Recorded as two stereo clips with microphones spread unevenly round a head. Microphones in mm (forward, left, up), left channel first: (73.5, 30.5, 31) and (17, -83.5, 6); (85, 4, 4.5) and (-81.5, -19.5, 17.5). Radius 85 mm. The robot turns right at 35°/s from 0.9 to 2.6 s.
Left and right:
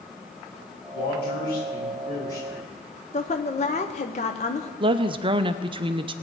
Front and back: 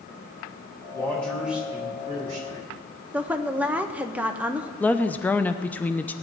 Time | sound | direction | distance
0.9 | a man speaking | 85° left | 3 m
3.1 | a woman speaking | 110° left | 0.8 m
4.8 | a woman speaking | 75° right | 0.6 m